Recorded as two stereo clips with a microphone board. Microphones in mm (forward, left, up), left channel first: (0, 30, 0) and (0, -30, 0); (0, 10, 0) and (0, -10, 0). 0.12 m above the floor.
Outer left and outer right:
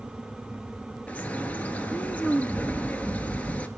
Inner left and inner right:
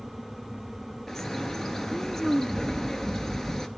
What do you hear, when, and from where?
1.1 s a bird: 25° left (ahead or behind), 0.7 m